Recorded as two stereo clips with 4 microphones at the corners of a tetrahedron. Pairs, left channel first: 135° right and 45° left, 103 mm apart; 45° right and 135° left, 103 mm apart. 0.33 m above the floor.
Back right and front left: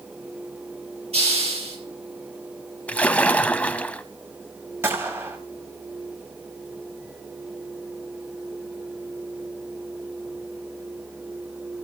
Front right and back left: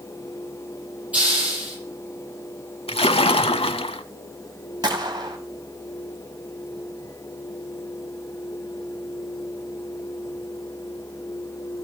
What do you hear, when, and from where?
1.1 s a hiss: 60° left, 7 m
2.9 s a splash: 60° right, 0.7 m
4.8 s a gunshot: 105° left, 2.5 m